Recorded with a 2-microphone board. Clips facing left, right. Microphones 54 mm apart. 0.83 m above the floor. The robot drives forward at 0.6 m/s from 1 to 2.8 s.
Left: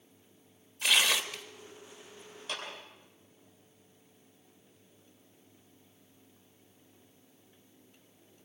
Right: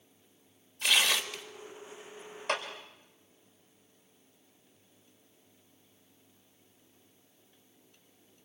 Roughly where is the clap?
Right.